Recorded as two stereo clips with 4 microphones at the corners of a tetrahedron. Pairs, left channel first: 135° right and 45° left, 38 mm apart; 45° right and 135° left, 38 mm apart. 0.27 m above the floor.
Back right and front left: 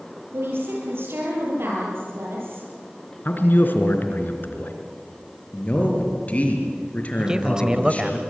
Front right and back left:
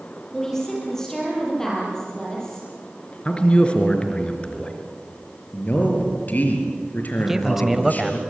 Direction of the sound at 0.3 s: 35° left.